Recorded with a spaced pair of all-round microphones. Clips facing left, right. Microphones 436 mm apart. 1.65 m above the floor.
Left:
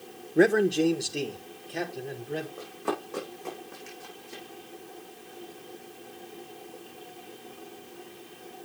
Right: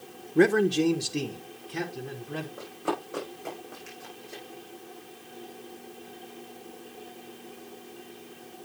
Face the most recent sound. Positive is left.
turn(degrees=20)  # may be behind; listen again after turning